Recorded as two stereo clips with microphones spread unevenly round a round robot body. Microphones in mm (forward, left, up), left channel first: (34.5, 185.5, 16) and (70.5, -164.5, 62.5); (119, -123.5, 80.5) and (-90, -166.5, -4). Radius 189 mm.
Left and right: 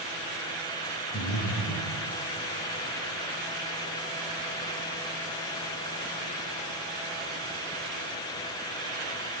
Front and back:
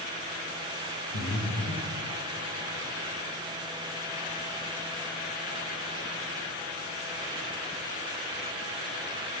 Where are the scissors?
No scissors in this recording.